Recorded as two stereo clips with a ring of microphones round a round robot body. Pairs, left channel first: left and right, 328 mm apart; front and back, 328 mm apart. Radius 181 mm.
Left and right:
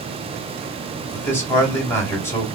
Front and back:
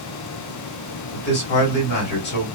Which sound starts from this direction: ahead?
A man speaking, at 1.1 s.